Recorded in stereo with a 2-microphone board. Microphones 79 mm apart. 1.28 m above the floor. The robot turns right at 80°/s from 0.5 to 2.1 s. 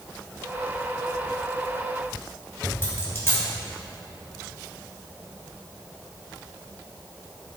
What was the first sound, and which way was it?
A dropped coin, 30° left (ahead or behind).